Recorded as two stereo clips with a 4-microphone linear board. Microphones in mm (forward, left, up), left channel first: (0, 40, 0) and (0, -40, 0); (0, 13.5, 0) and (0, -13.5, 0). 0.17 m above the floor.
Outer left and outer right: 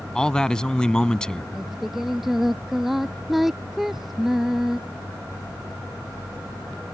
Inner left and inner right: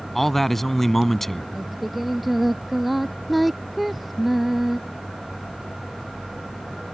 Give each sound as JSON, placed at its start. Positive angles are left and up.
{"t": 0.1, "sound": "a man speaking", "side_deg": 10}
{"t": 1.6, "sound": "singing", "side_deg": -5}